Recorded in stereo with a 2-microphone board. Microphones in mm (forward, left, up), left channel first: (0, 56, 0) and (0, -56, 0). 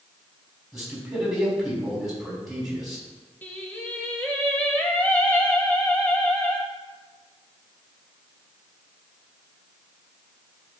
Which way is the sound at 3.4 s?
15° left (ahead or behind).